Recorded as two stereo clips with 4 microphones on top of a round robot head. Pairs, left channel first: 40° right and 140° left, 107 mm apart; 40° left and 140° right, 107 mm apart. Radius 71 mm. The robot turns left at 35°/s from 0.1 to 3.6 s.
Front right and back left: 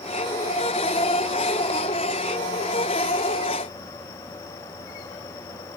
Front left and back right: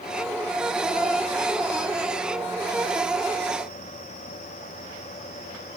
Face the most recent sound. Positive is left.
No sound to turn to.